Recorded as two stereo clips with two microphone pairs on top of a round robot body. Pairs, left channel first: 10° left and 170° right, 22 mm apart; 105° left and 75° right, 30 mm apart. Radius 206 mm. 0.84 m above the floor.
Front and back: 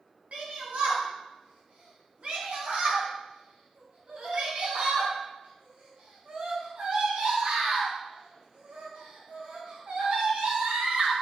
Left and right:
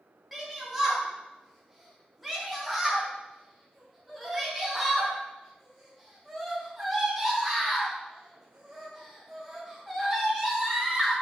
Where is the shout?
155° right, 1.9 m.